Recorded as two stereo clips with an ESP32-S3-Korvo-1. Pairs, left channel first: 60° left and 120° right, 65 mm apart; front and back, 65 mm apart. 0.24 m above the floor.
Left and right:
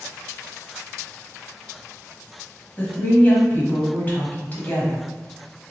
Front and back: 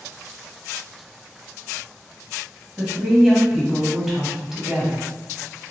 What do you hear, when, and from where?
2.8 s a woman speaking: 100° left, 1.1 m